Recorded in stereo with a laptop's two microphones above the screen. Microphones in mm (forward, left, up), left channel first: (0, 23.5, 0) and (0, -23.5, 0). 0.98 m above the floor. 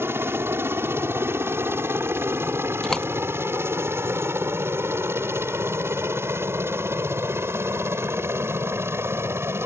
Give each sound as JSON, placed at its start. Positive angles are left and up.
{"t": 0.0, "sound": "a helicopter", "side_deg": -60}
{"t": 2.8, "sound": "a door slam", "side_deg": 10}